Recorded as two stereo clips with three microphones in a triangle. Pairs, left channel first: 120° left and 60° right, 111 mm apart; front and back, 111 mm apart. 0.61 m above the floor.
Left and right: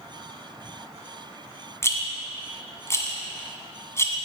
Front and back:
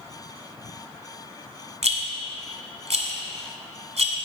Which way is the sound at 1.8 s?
175° right.